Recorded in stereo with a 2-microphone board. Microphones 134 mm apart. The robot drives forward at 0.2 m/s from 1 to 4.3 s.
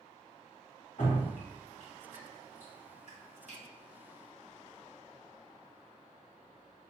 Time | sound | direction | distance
1.0 | dripping | 65° left (ahead or behind) | 1.3 m